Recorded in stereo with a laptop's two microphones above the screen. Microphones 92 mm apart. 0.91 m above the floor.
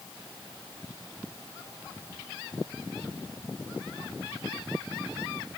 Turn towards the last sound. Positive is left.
No sound to turn to.